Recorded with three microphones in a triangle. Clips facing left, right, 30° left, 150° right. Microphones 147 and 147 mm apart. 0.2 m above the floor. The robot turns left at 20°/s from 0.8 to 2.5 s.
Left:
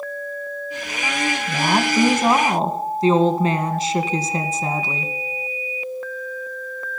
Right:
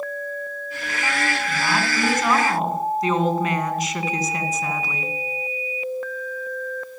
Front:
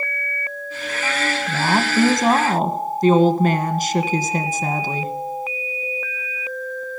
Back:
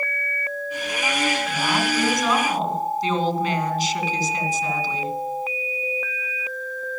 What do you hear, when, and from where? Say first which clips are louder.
1.5 s a woman speaking: left 4 dB, front 3 dB; 60° left, 1.8 m; by 5.1 s 40° left, 1.8 m